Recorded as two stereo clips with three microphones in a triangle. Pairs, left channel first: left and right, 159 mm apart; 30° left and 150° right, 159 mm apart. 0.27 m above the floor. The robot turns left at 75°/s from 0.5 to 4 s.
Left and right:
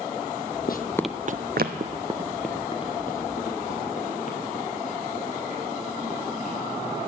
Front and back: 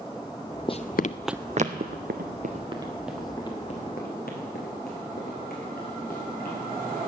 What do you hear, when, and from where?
0.7 s running footsteps: 85° left, 0.7 m; by 6.5 s 50° left, 8.5 m